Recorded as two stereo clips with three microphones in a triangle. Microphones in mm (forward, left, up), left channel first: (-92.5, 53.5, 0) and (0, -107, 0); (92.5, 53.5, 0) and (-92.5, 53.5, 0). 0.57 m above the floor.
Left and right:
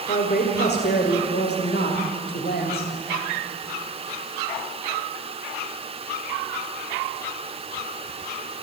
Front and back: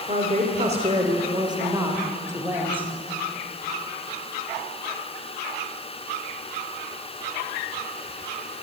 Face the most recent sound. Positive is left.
turn(degrees=100)